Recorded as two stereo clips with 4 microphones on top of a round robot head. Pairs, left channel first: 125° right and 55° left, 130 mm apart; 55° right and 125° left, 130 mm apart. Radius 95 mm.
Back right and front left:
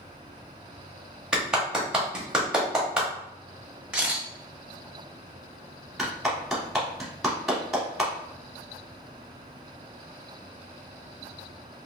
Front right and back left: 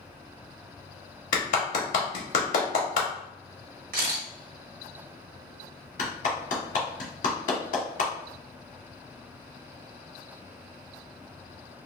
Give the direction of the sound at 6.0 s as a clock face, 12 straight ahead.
1 o'clock.